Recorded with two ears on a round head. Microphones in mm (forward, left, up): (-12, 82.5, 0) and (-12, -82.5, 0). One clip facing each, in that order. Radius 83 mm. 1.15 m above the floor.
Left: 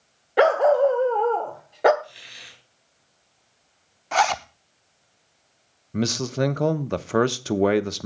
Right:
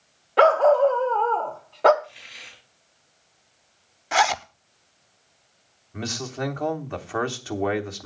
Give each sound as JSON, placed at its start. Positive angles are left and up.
{"t": 0.4, "sound": "a dog barking", "side_deg": 15, "distance_m": 1.1}
{"t": 2.0, "sound": "a hiss", "side_deg": 40, "distance_m": 5.0}
{"t": 4.1, "sound": "a zipper", "side_deg": -5, "distance_m": 0.5}
{"t": 5.9, "sound": "a man speaking", "side_deg": 45, "distance_m": 0.9}